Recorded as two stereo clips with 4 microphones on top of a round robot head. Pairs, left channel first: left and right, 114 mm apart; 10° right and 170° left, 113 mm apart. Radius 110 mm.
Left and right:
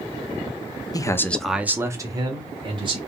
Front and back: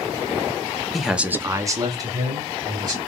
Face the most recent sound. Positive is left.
turn(degrees=-135)